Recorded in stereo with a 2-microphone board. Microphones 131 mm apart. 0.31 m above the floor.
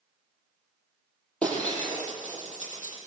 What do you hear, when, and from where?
1.4 s breaking glass: 10° left (ahead or behind), 6.5 m